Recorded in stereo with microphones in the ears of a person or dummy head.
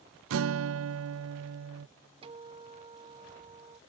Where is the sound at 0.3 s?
80° right.